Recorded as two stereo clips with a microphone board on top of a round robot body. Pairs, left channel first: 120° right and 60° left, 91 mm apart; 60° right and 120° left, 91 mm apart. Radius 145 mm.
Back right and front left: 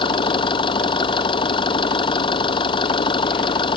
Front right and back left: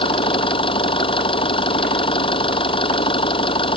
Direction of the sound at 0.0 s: 90° right.